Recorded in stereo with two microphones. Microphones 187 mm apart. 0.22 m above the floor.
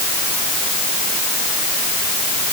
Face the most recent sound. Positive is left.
No sound to turn to.